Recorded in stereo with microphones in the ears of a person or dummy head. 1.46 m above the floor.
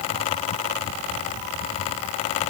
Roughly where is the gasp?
I don't hear a gasp.